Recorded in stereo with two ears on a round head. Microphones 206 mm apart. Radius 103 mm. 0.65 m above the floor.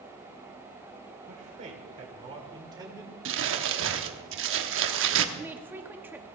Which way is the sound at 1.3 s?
35° right (ahead or behind).